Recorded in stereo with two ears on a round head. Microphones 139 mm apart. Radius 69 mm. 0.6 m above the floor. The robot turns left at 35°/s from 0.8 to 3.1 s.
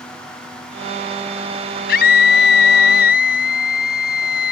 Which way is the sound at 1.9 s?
110° left.